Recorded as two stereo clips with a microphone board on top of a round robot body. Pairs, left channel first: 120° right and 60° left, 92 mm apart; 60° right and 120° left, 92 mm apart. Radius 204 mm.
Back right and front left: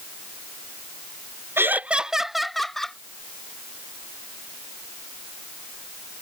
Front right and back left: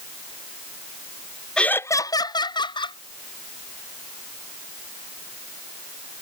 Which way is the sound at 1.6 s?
15° left.